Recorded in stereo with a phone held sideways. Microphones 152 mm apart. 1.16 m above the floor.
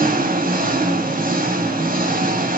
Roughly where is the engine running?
Right.